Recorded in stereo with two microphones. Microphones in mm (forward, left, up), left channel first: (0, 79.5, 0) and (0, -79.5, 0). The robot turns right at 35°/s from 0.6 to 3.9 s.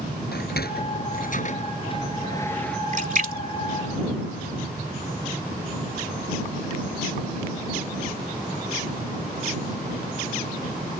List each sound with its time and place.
0.3 s a sliding door: 80° left; by 2.8 s 5° left (ahead or behind)
2.9 s a splash: 55° right (ahead or behind); by 4.8 s 70° right (ahead or behind)